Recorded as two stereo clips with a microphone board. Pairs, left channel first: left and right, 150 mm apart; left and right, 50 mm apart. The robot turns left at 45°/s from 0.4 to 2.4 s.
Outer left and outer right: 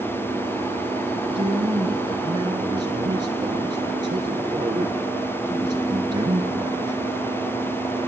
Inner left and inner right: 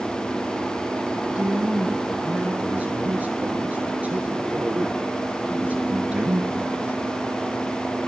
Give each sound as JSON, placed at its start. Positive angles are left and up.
{"t": 1.1, "sound": "a man speaking", "azimuth_deg": -75, "distance_m": 1.3}